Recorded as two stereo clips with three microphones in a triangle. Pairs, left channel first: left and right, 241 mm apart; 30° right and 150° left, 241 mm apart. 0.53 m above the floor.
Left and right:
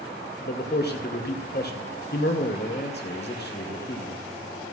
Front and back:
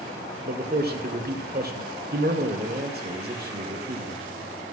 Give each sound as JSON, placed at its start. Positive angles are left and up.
{"t": 0.5, "sound": "a man speaking", "azimuth_deg": 120, "distance_m": 2.0}